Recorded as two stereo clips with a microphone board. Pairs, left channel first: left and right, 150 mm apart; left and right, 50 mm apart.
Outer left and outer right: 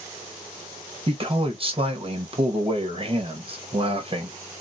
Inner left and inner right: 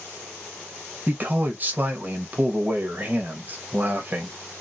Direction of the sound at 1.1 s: 35° right (ahead or behind).